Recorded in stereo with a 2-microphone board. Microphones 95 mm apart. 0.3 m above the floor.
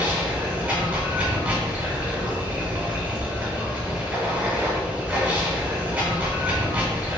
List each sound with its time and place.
0.0 s running water: 10° right (ahead or behind), 1.0 m